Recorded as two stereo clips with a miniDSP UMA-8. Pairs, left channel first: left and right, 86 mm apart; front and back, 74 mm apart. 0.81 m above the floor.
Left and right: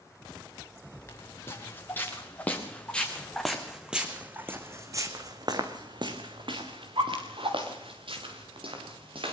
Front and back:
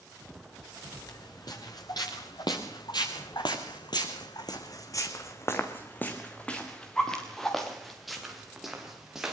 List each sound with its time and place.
1.1 s footsteps: 30° left, 5 m; by 9.3 s 95° right, 6 m